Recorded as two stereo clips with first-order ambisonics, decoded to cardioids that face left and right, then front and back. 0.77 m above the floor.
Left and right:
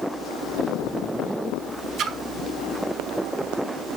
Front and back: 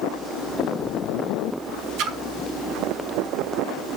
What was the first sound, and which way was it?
A splash, 145° right.